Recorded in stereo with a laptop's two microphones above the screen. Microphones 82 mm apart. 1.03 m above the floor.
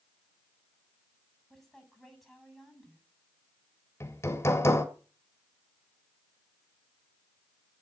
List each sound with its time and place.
1.5 s a woman speaking: centre (ahead or behind), 8 m
4.0 s hammering: 35° left (ahead or behind), 1.6 m